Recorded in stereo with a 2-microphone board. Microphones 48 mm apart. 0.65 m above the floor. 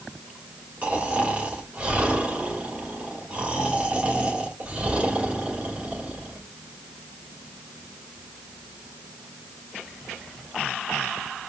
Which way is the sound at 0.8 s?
25° right (ahead or behind).